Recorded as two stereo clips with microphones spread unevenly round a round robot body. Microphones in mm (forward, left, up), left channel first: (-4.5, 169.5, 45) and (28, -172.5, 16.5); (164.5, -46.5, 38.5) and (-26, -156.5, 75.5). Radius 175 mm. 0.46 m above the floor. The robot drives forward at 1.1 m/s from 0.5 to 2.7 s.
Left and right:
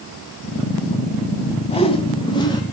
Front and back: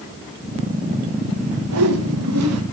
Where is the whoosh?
170° left, 1.4 m; by 2.6 s 175° left, 2.5 m.